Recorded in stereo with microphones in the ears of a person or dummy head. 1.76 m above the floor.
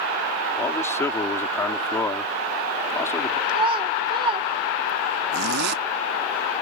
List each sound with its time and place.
0.6 s a man speaking: 15° left (ahead or behind)
3.5 s a child speaking: 25° right (ahead or behind)
5.3 s a zipper: 65° right (ahead or behind)